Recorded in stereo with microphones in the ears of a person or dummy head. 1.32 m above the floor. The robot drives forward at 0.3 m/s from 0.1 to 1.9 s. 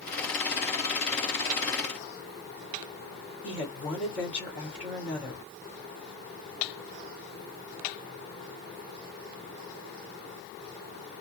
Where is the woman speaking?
5° left (ahead or behind), 1.7 m.